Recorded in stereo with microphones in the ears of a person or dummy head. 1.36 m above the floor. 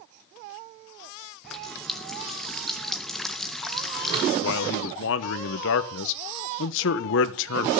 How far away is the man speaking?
About 1.2 m.